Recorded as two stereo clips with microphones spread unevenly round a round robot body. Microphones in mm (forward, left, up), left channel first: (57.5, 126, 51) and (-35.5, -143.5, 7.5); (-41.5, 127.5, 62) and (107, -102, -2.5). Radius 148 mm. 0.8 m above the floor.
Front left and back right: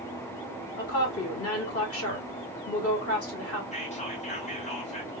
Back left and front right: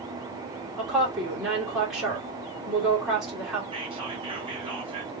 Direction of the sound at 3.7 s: 5° left.